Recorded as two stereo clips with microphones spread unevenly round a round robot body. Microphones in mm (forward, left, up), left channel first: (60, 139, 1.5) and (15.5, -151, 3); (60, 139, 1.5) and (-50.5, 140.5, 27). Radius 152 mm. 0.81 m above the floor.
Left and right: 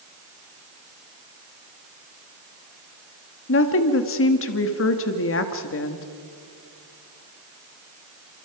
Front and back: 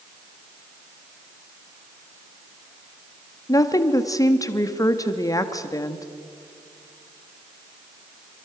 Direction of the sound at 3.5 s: 45° left.